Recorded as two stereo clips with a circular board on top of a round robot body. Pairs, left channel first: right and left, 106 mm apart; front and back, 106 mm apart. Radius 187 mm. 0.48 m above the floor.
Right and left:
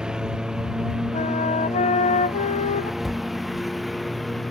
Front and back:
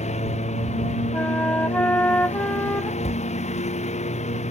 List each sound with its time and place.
0.0 s a lawn mower: 5° left; by 4.5 s straight ahead
1.1 s a flute: 75° right
3.0 s a cupboard door: straight ahead